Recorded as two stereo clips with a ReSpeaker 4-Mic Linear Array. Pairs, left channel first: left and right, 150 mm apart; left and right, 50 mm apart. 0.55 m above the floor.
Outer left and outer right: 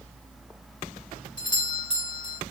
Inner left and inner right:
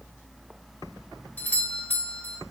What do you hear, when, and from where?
1.4 s a doorbell: 30° left (ahead or behind), 2 m